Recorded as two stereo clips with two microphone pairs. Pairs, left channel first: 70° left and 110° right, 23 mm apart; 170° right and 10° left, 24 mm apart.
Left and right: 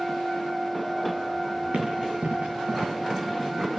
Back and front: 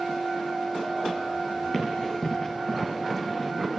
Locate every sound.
1.7 s running footsteps: 100° right, 9 m; by 2.8 s 105° right, 8.5 m